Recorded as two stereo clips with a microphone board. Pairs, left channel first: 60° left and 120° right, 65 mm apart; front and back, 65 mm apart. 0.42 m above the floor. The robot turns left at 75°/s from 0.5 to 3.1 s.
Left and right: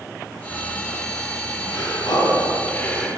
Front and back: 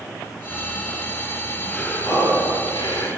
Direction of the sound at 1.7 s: 80° left.